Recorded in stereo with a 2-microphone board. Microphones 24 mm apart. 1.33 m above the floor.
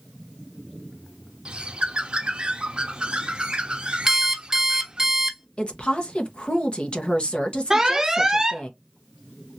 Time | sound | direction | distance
1.4 | a bird | 40° right (ahead or behind) | 0.6 m
4.1 | an alarm clock | 20° right (ahead or behind) | 0.6 m
5.6 | a woman speaking | 50° left (ahead or behind) | 1.0 m
7.7 | an alarm | 20° right (ahead or behind) | 0.6 m